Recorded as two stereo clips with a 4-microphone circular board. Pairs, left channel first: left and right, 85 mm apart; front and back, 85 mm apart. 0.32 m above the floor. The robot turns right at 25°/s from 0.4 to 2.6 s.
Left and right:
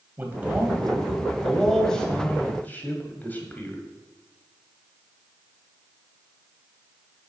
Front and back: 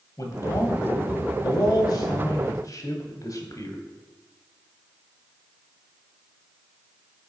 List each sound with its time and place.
0.2 s a man speaking: 30° right, 1.4 m; by 3.8 s 25° left, 1.4 m